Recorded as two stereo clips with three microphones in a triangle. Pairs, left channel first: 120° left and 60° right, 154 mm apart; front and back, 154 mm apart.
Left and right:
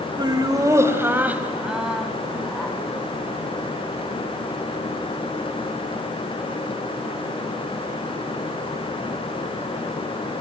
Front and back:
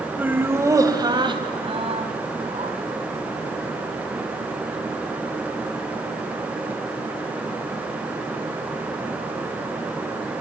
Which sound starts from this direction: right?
Laughter, at 0.2 s.